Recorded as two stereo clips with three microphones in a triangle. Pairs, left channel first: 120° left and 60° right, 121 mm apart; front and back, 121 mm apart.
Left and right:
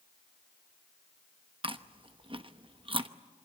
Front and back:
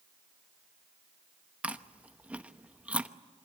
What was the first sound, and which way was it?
Chewing, 100° right.